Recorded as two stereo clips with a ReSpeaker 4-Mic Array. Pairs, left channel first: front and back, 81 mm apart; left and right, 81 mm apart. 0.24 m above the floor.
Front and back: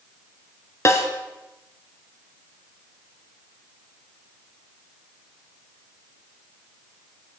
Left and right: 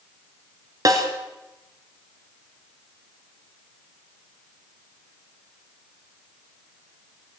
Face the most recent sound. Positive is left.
turn(degrees=-50)